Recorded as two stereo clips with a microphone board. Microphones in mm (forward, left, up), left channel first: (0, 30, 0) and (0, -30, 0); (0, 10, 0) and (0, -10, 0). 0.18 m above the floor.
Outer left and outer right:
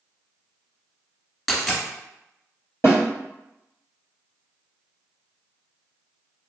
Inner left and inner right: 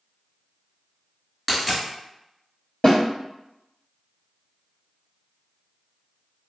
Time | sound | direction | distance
1.5 | a dropped coin | 5° left (ahead or behind) | 0.8 m
2.8 | a snare drum | 45° left (ahead or behind) | 1.3 m